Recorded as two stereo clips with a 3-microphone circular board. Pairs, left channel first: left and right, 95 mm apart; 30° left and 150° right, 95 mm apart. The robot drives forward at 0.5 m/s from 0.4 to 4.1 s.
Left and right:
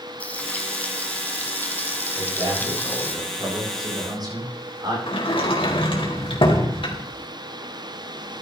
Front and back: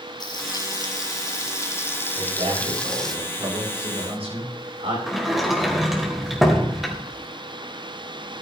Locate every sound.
0.2 s frying: 20° left, 1.9 m; by 3.1 s 110° left, 1.4 m
2.1 s a man speaking: 130° right, 8.5 m; by 5.0 s 135° right, 9 m
5.1 s a sliding door: 120° left, 3 m